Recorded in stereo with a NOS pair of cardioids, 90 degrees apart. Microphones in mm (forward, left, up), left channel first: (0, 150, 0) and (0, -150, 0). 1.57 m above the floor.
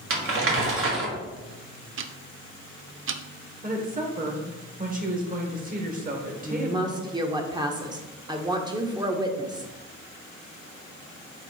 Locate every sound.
0.1 s crumpling: 45° right, 2 m
2.0 s ticking: 45° right, 0.6 m
3.6 s a woman speaking: 30° right, 2 m
6.4 s a woman speaking: 15° right, 1.3 m